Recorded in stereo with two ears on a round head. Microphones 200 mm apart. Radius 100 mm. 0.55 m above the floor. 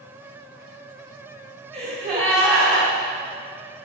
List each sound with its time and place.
1.7 s a gasp: 45° right (ahead or behind), 2 m